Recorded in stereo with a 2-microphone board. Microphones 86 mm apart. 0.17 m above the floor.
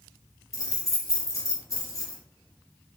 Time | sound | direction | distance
0.5 | keys jangling | 40° left (ahead or behind) | 1.3 m